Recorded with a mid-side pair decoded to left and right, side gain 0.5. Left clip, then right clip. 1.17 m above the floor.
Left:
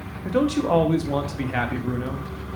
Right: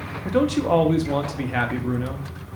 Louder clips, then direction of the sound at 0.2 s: Right 1 dB; 5° right.